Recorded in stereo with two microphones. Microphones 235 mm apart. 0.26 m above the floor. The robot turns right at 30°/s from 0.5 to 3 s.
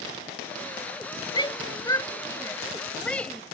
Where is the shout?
20° left (ahead or behind); by 3.4 s 5° left (ahead or behind).